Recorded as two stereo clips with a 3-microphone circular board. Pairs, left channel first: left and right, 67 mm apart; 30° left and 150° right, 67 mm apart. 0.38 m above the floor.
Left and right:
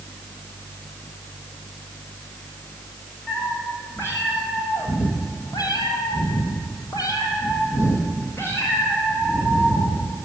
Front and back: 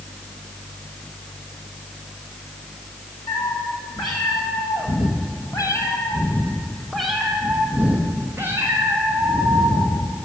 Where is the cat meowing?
25° left, 2.5 m; by 10.1 s 160° left, 3 m.